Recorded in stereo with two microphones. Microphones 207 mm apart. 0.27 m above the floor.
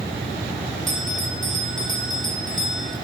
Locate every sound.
0.9 s a bell: 70° right (ahead or behind), 5 m